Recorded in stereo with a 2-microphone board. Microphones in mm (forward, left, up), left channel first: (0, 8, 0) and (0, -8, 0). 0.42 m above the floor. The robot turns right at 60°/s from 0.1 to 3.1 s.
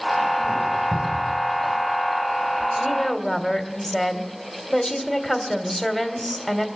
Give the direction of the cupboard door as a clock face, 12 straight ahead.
4 o'clock.